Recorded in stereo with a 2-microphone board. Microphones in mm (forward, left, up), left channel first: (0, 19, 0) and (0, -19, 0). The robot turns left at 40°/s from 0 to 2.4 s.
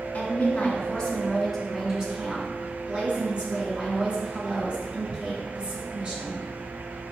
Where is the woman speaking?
60° left, 2.5 m; by 6.4 s 30° right, 2.5 m.